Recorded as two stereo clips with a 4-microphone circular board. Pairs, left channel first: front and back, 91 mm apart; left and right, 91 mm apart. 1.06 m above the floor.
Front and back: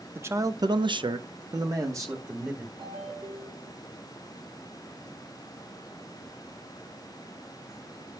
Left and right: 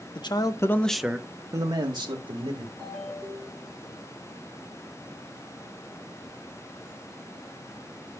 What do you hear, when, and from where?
0.1 s a man speaking: 115° left, 1.1 m; by 2.7 s 120° right, 2 m
2.8 s a ringtone: 160° left, 5.5 m